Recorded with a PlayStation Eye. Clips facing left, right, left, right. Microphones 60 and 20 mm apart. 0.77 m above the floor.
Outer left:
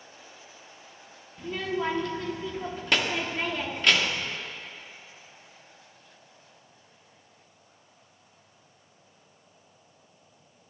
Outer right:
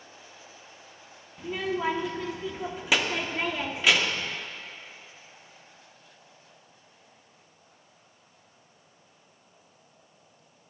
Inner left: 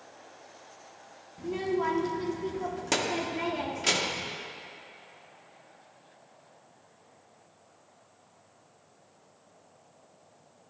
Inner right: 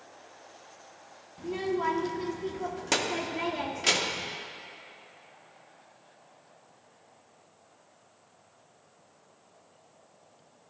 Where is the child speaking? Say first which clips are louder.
Outer right 1 dB, even; 5° right (ahead or behind), 0.7 m.